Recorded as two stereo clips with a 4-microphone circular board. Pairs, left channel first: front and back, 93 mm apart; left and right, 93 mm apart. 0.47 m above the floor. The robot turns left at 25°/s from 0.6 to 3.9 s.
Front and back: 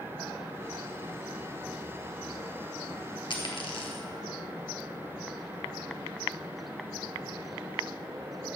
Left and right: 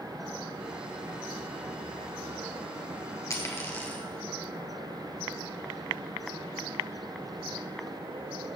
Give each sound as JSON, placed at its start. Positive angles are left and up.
{"t": 3.3, "sound": "a dropped coin", "azimuth_deg": 35, "distance_m": 2.5}